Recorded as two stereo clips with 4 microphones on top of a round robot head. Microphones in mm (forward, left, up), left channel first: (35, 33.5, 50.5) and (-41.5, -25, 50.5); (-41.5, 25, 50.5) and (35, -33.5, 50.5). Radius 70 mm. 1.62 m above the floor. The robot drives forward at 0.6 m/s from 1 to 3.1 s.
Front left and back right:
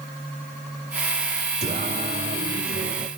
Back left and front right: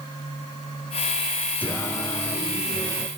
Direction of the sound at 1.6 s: 145° right.